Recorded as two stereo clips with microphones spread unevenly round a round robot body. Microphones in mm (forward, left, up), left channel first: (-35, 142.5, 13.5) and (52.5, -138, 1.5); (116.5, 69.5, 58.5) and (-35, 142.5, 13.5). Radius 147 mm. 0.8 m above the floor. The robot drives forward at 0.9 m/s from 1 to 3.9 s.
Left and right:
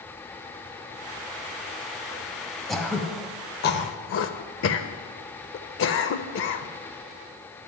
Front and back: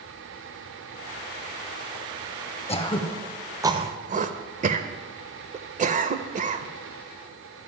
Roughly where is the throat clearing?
Ahead.